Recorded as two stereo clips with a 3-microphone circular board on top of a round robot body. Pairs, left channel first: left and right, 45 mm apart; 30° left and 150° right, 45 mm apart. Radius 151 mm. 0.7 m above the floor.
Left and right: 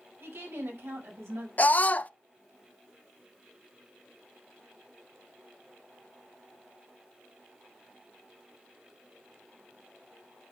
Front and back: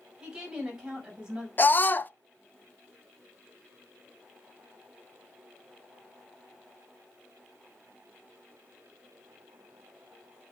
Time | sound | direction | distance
0.2 | a woman speaking | 80° right | 5.5 m
1.6 | a scream | 50° left | 0.7 m